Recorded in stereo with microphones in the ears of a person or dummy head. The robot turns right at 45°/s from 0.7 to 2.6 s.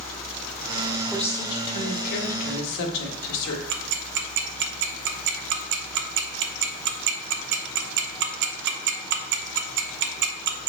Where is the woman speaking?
5° left, 1.6 m; by 3.6 s 70° left, 1.6 m.